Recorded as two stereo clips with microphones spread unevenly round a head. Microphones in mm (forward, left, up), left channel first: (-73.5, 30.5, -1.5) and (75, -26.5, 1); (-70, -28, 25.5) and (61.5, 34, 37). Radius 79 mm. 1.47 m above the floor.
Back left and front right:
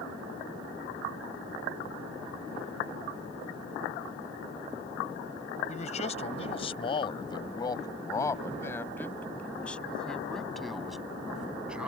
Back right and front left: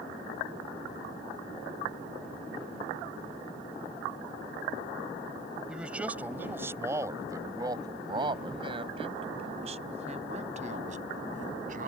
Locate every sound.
5.7 s a man speaking: 110° left; by 11.9 s 65° left